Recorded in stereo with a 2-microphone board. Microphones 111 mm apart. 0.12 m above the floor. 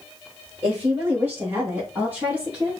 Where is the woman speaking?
25° right (ahead or behind), 2 m; by 2.7 s 10° right (ahead or behind), 3 m.